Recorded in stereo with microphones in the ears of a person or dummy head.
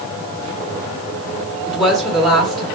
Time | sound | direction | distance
1.7 | a woman speaking | 5° left (ahead or behind) | 1.0 m